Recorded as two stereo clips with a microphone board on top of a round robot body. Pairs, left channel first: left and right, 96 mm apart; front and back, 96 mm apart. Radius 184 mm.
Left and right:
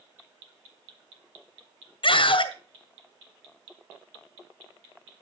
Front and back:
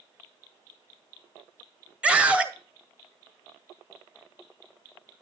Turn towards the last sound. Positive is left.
turn(degrees=105)